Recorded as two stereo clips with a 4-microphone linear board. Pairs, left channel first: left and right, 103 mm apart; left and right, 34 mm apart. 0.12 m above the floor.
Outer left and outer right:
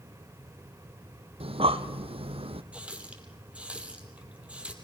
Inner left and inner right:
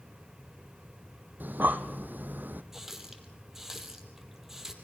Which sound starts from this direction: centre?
A running tap, at 2.7 s.